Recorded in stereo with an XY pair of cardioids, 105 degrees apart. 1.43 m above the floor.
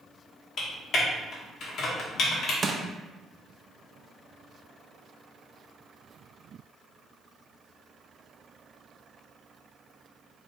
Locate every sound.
0.6 s typing on a keyboard: 60° left, 1.6 m
2.6 s crushing: 30° right, 0.7 m